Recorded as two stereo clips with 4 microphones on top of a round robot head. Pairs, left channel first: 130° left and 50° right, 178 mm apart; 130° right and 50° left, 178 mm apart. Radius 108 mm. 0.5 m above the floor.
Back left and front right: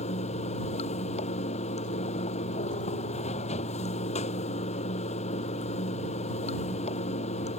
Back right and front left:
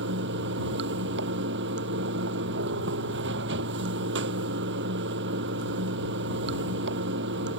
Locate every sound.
0.0 s running water: 75° left